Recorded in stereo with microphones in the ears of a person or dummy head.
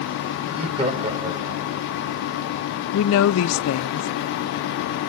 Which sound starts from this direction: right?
Laughter, at 0.5 s.